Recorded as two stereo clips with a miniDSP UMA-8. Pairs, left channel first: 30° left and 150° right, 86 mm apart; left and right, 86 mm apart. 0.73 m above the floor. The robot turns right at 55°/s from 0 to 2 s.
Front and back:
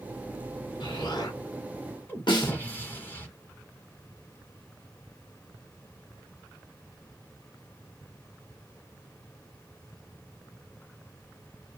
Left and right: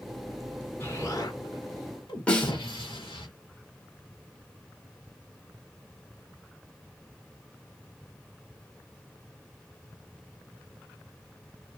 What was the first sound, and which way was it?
An explosion, 30° left.